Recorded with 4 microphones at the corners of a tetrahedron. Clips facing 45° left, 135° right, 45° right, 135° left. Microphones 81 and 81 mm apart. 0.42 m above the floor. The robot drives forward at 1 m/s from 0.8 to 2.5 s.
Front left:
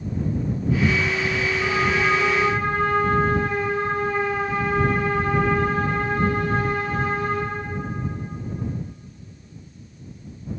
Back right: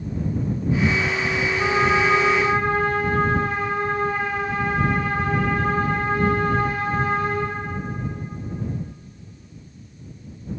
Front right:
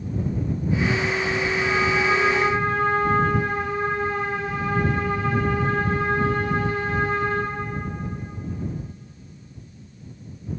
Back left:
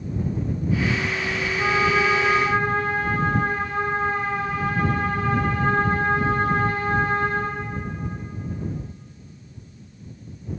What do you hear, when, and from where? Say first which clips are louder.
1.6 s a trumpet: back right 4 dB, back left 4 dB; 175° right, 5.5 m